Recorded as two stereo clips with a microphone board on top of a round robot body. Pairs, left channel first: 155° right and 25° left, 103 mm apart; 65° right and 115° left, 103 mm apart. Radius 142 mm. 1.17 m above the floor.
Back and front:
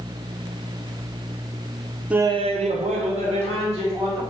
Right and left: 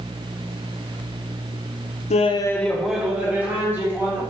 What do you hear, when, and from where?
2.1 s laughter: 60° right, 0.5 m; by 4.2 s 45° left, 3 m